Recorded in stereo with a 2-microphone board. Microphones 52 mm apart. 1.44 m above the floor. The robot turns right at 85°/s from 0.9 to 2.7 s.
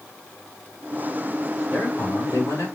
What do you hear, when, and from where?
1.7 s a man speaking: 30° left, 5 m; by 2.7 s 110° left, 5 m